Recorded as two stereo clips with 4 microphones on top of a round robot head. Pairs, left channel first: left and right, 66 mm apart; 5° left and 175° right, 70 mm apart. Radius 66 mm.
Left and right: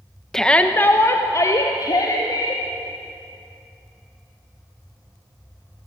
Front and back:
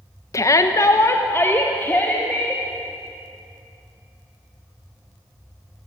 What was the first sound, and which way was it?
A shout, 10° left.